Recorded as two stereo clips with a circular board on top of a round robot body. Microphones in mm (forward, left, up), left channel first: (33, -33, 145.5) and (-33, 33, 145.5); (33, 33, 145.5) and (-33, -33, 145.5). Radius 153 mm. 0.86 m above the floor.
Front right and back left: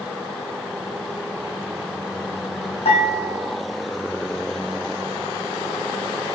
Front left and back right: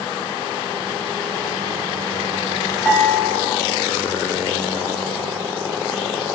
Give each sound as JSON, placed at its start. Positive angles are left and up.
{"t": 2.9, "sound": "dishes clattering", "azimuth_deg": -35, "distance_m": 5.0}